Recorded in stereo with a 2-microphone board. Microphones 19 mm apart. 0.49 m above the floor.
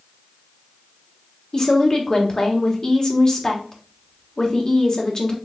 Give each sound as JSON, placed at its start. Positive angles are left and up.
{"t": 1.5, "sound": "a woman speaking", "side_deg": 35, "distance_m": 1.1}